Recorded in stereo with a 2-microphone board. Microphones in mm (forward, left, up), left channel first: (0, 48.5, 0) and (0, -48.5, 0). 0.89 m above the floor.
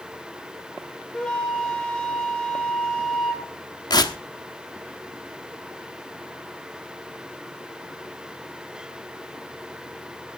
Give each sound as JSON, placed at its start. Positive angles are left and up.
{"t": 1.1, "sound": "a flute", "side_deg": 10, "distance_m": 3.0}
{"t": 3.9, "sound": "tearing paper", "side_deg": 45, "distance_m": 1.2}